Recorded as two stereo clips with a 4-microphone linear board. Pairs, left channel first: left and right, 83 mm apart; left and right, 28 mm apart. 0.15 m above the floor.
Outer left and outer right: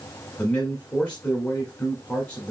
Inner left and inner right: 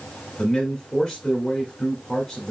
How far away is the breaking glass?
No breaking glass in this recording.